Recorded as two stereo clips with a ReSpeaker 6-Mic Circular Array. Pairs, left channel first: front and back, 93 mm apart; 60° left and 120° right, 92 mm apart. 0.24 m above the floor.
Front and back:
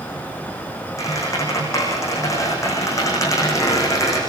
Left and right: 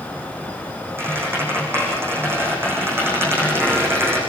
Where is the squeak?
55° right, 7.5 m.